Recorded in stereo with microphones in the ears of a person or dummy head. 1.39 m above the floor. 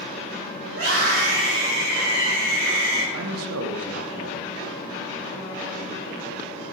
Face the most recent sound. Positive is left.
turn(degrees=-75)  # may be behind; listen again after turning